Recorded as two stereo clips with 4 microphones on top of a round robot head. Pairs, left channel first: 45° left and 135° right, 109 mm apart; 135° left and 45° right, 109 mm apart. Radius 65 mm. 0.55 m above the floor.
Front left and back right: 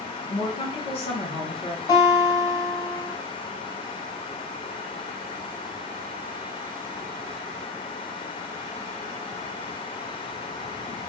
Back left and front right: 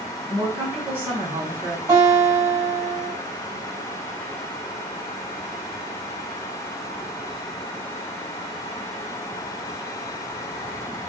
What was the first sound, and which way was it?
A woman speaking, 25° left.